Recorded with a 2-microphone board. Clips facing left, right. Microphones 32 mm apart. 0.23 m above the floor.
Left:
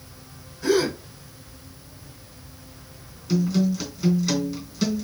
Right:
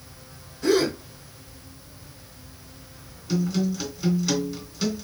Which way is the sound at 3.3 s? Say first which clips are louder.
Left 3 dB; centre (ahead or behind).